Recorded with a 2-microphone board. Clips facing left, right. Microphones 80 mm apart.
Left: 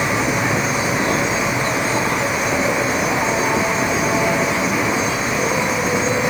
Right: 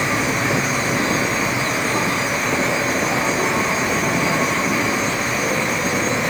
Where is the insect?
40° left (ahead or behind), 3.5 m.